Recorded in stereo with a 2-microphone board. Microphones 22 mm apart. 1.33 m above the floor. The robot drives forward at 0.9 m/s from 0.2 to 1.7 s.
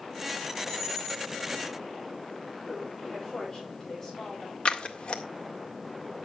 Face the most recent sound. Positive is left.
turn(degrees=55)  # may be behind; listen again after turning